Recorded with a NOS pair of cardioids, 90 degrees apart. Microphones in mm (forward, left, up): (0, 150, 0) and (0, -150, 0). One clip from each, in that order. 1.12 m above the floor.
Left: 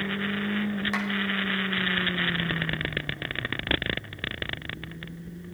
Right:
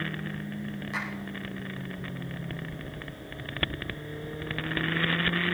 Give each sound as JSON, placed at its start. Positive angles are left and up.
{"t": 0.9, "sound": "a clap", "azimuth_deg": 65, "distance_m": 5.5}